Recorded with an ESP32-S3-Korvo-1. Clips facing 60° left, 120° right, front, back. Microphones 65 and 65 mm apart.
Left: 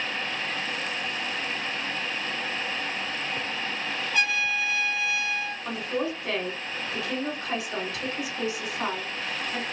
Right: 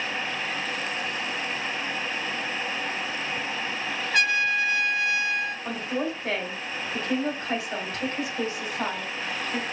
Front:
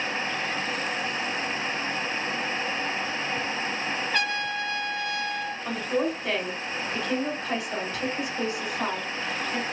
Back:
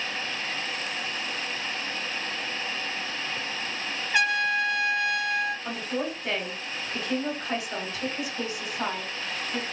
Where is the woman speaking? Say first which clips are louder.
Even, front 4 dB; 95° right, 1.7 m.